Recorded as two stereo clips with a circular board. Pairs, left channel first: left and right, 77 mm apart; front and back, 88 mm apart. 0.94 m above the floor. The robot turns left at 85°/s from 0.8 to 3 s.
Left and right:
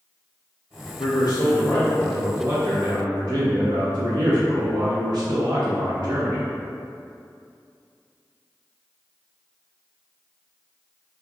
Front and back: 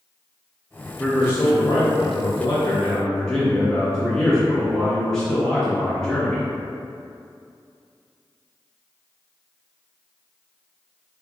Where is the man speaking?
85° left, 0.6 m; by 6.5 s 85° right, 0.6 m.